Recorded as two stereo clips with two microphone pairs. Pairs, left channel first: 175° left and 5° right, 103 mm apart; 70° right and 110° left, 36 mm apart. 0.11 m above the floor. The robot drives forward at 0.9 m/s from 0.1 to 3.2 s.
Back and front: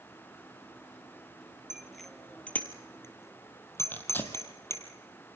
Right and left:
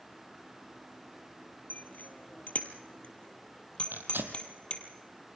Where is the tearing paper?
105° left, 2 m.